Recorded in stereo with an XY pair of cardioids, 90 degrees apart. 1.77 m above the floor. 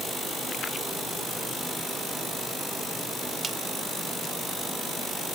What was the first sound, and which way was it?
Only background noise.